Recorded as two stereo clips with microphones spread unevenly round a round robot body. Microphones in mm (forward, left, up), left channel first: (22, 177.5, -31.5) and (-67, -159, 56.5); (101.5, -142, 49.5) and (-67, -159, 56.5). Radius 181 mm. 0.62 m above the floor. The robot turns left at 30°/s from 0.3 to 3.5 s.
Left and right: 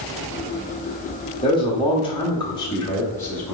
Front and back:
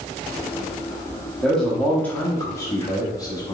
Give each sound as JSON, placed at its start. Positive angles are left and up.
{"t": 1.4, "sound": "a man speaking", "azimuth_deg": 90, "distance_m": 0.9}